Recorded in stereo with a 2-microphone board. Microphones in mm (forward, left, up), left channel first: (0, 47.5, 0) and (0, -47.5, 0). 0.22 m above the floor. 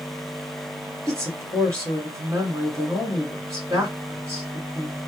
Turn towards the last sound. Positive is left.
turn(degrees=-35)  # may be behind; listen again after turning